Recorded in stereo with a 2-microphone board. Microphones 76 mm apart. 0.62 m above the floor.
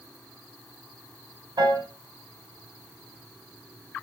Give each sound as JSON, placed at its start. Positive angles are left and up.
{"t": 1.6, "sound": "a piano", "side_deg": -70, "distance_m": 2.5}